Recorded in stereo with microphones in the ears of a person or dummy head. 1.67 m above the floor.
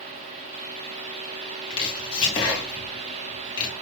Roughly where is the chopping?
Left.